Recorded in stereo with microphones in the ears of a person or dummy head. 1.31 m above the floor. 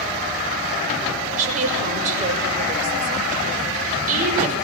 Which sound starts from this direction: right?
A woman speaking, at 1.3 s.